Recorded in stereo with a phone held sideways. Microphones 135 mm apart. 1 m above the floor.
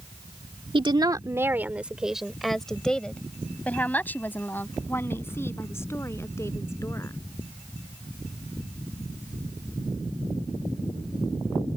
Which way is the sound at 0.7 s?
40° right (ahead or behind).